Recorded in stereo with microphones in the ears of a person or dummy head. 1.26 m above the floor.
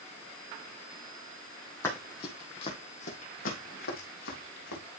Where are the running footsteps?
15° left (ahead or behind), 2.5 m; by 4.8 s 70° left (ahead or behind), 4.5 m.